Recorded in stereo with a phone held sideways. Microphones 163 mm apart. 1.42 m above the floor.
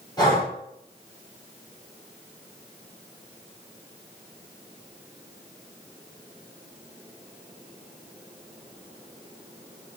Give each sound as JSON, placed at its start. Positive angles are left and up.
{"t": 0.2, "sound": "breathing", "side_deg": 25, "distance_m": 5.0}